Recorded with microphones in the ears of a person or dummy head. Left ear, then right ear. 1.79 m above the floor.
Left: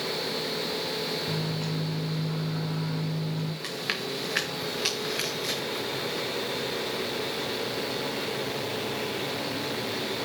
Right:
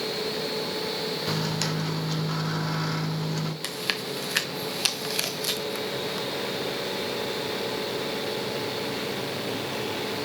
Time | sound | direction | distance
1.3 | a microwave | 60° right (ahead or behind) | 0.7 m
3.6 | chewing | 15° right (ahead or behind) | 1.0 m